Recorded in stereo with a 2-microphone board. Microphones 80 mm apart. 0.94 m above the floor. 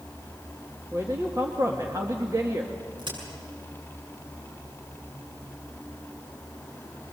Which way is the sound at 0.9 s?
45° right (ahead or behind).